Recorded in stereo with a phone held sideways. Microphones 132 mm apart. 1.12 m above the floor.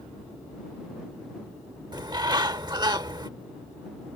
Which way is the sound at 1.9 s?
35° right (ahead or behind).